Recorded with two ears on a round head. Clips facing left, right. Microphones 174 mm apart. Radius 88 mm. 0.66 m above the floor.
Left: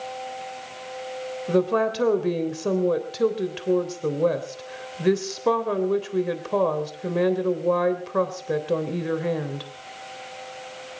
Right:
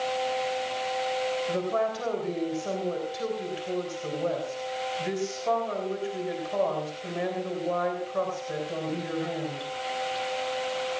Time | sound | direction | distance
1.5 | a woman speaking | 75° left (ahead or behind) | 3 m